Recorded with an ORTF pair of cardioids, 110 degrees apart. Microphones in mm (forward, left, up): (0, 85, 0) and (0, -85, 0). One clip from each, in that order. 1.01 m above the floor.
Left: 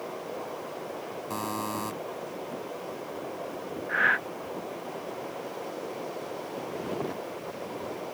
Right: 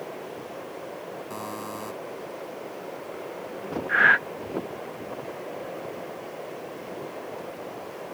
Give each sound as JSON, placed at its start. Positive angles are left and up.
{"t": 1.3, "sound": "a buzzer", "azimuth_deg": 30}
{"t": 3.9, "sound": "breathing", "azimuth_deg": -25}